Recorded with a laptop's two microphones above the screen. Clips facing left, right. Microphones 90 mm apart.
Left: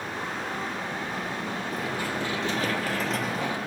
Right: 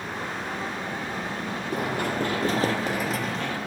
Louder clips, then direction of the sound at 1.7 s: Right 6 dB; 60° right (ahead or behind).